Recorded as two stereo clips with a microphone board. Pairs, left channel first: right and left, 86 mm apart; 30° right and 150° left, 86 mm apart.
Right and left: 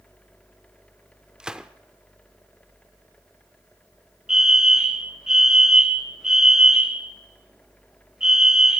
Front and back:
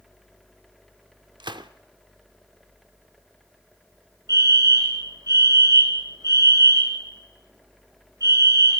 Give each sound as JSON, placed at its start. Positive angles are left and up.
{"t": 1.4, "sound": "a gunshot", "azimuth_deg": 170, "distance_m": 1.0}
{"t": 4.3, "sound": "a fire alarm", "azimuth_deg": 170, "distance_m": 2.0}